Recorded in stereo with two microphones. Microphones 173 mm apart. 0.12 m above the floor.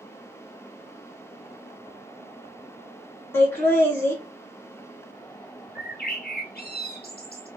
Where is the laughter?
15° left (ahead or behind), 1.7 m.